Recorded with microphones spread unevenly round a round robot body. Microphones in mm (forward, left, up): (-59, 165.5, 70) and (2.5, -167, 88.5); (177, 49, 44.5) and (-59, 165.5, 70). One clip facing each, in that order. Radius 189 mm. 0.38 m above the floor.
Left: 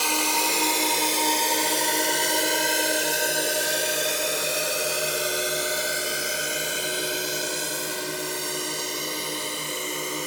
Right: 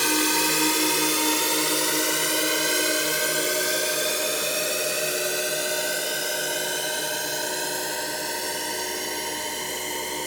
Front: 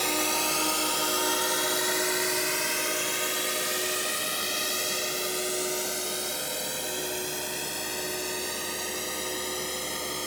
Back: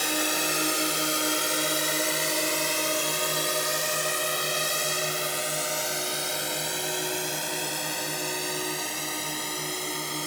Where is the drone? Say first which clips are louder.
Right 4 dB, even; 125° right; by 10.3 s straight behind.